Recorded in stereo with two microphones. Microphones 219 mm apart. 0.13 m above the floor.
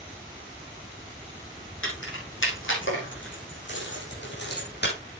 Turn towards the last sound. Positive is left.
turn(degrees=50)  # may be behind; listen again after turning